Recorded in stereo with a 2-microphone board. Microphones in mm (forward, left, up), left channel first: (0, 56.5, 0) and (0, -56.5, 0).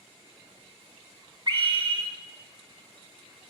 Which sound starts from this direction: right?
A scream, at 1.5 s.